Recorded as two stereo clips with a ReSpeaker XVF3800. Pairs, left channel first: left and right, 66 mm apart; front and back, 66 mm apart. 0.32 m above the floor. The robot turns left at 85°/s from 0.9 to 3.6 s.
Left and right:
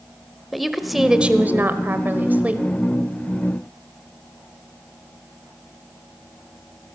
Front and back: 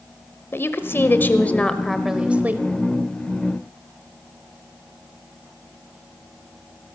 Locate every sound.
0.5 s a woman speaking: straight ahead, 1.0 m; by 2.7 s 150° right, 1.0 m